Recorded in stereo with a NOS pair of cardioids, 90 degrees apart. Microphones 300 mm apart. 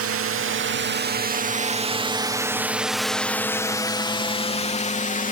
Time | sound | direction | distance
0.0 | a drone | 55° right | ?